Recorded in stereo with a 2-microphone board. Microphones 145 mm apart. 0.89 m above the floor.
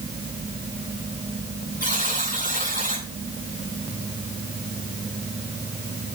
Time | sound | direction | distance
1.8 | a buzzer | 75° left (ahead or behind) | 9 m